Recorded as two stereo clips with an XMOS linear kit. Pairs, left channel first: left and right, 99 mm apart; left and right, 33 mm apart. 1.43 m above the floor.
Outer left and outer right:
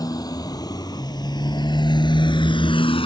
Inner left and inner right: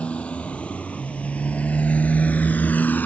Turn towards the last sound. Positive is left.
turn(degrees=65)  # may be behind; listen again after turning